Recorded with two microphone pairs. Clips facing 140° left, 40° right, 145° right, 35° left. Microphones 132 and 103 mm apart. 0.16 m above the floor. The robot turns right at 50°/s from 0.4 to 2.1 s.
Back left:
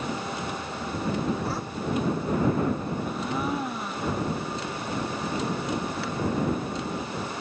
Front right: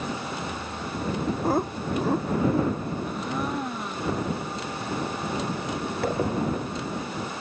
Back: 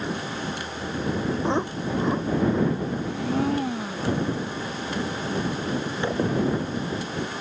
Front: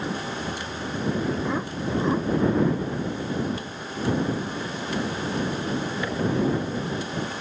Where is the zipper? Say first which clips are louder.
Front right 8 dB, back 4 dB; 85° right.